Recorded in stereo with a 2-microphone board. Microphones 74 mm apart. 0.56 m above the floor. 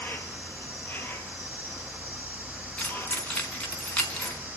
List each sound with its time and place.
0.0 s an insect: 25° left (ahead or behind), 2.5 m
2.8 s keys jangling: 15° left (ahead or behind), 4 m